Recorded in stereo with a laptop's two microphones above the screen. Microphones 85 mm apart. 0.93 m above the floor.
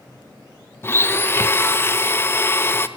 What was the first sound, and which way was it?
A blender, 25° left (ahead or behind).